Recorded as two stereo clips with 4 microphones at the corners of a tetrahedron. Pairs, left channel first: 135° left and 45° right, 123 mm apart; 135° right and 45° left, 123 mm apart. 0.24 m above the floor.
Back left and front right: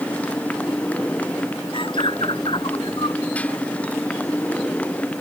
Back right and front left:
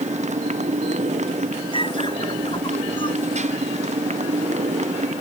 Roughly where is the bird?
Behind.